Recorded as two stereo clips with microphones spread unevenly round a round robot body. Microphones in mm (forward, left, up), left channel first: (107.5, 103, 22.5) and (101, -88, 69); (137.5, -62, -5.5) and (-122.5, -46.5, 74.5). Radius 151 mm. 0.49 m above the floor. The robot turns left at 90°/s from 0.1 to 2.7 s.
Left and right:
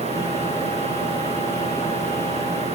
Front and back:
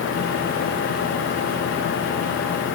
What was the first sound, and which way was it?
Only background noise.